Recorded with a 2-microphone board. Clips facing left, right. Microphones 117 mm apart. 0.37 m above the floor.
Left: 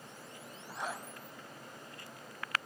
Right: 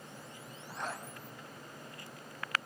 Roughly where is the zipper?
Centre.